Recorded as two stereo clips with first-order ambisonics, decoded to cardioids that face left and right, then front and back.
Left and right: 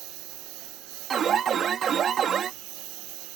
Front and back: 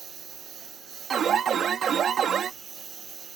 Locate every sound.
0.0 s a lawn mower: 120° right; by 3.4 s 115° right
1.1 s an alarm: 135° right